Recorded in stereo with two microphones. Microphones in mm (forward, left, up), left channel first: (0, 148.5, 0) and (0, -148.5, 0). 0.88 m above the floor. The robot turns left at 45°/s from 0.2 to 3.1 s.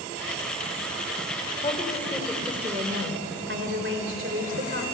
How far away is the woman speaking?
About 2.5 m.